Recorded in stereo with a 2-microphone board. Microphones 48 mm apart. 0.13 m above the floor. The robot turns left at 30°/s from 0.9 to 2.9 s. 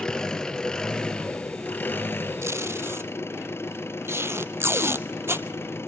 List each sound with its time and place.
0.0 s an engine running: 165° left, 1.2 m; by 5.9 s 105° left, 1.2 m
2.4 s tape being pulled: 75° right (ahead or behind), 0.7 m; by 5.5 s 60° right (ahead or behind), 0.7 m